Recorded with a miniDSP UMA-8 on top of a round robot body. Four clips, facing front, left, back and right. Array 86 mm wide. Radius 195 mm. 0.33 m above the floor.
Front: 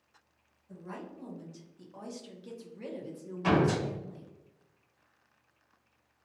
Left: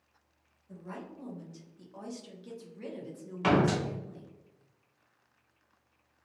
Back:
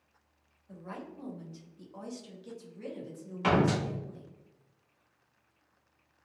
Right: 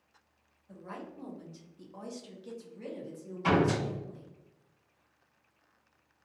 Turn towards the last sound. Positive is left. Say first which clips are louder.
# left 1 dB, even
turn(degrees=120)